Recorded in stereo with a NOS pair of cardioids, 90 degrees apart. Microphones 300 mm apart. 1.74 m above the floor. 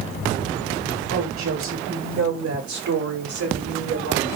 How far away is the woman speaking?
About 9.5 m.